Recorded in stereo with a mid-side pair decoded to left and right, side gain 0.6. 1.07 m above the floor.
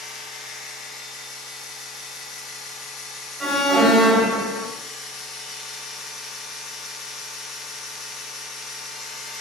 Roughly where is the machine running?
Ahead left.